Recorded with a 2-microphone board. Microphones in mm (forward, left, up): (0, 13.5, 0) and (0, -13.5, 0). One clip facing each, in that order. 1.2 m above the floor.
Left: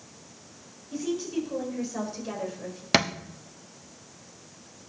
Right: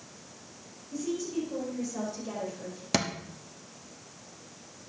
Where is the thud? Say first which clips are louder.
Left 6 dB; 40° left (ahead or behind), 0.9 m.